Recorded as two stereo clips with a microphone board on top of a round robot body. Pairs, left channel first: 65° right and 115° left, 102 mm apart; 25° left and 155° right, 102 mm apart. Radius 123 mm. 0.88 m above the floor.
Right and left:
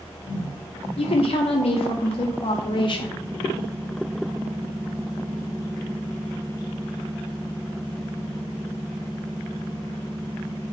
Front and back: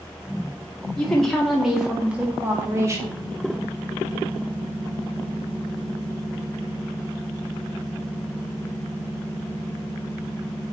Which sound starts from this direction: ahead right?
A woman speaking, at 1.0 s.